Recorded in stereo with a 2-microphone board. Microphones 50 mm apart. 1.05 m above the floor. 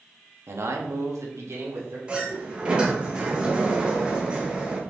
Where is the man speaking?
60° right (ahead or behind), 1.3 m; by 2.0 s 55° right (ahead or behind), 2.5 m.